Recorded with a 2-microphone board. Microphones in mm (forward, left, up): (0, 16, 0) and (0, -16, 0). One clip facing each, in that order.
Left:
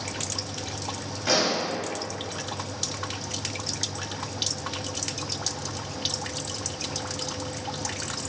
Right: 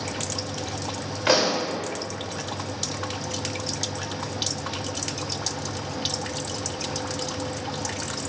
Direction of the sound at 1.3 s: 60° right (ahead or behind).